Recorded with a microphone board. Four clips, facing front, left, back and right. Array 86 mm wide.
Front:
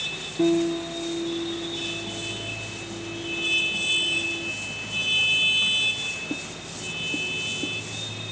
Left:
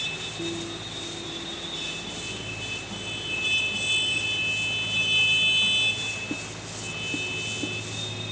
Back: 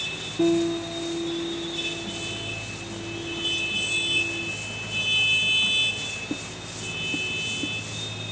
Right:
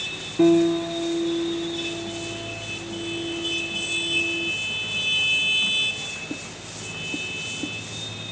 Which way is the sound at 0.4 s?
85° right.